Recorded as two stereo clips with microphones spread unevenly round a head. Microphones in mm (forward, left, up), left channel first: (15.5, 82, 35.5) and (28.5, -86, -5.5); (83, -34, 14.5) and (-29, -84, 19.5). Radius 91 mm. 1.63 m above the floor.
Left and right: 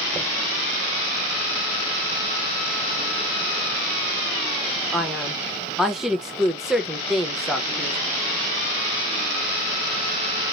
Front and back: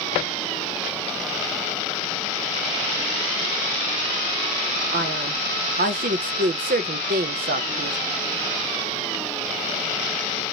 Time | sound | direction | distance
4.9 | a man speaking | 170° right | 0.6 m